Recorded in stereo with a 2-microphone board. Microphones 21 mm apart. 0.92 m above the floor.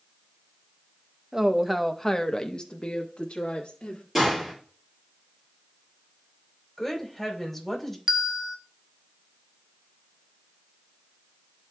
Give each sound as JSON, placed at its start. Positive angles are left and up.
{"t": 1.3, "sound": "a woman speaking", "side_deg": -30, "distance_m": 0.6}
{"t": 4.2, "sound": "a gunshot", "side_deg": -10, "distance_m": 5.0}
{"t": 6.8, "sound": "a woman speaking", "side_deg": 10, "distance_m": 3.0}
{"t": 8.1, "sound": "a bell", "side_deg": -20, "distance_m": 0.5}